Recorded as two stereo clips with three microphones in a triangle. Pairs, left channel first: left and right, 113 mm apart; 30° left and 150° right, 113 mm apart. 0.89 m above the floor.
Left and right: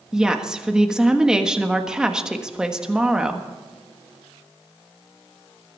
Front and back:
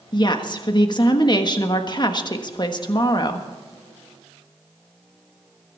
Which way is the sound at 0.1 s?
10° right.